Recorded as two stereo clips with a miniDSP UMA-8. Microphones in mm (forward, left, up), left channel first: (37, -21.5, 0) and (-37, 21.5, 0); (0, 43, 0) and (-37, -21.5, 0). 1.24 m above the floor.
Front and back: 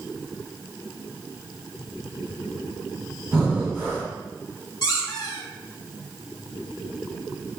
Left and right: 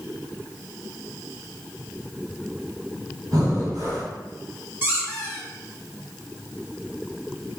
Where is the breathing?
120° right, 1.3 m.